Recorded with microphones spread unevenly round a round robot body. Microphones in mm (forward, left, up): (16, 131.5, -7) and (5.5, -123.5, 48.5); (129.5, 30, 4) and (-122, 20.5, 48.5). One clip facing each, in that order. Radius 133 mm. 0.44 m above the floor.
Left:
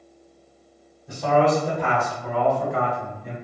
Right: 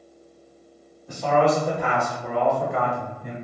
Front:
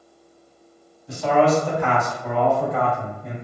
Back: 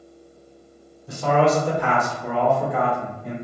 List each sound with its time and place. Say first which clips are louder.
1.1 s a man speaking: left 1 dB, front 1 dB; 150° left, 1.3 m; by 3.3 s 70° right, 1.2 m